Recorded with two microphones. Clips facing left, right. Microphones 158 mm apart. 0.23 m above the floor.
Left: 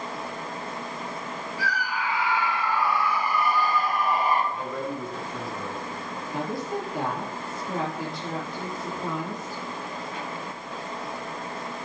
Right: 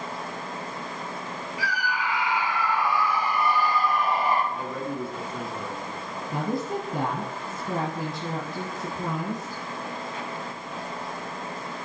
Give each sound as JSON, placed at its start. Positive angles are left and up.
{"t": 1.6, "sound": "a scream", "side_deg": -15, "distance_m": 5.0}
{"t": 4.5, "sound": "a man speaking", "side_deg": -5, "distance_m": 2.5}
{"t": 6.3, "sound": "a woman speaking", "side_deg": -50, "distance_m": 4.0}